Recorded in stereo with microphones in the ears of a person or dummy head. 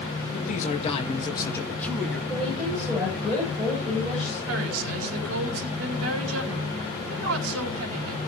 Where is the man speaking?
45° left (ahead or behind), 2.5 m; by 2.2 s centre (ahead or behind), 2.5 m.